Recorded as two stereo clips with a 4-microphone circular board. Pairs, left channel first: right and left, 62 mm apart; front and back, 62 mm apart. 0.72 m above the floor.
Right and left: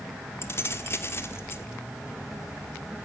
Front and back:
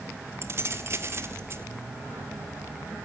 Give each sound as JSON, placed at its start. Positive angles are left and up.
{"t": 0.4, "sound": "keys jangling", "azimuth_deg": -135, "distance_m": 1.5}